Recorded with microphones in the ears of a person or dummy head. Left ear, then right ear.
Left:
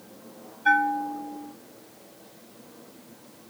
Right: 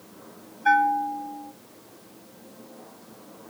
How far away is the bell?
About 0.7 m.